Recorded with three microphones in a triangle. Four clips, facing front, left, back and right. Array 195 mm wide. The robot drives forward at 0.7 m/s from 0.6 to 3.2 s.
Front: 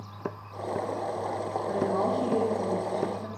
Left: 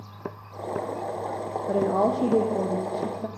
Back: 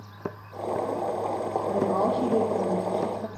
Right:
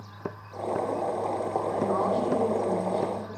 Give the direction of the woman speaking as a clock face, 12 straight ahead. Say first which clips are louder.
Left 5 dB, back 2 dB; 9 o'clock.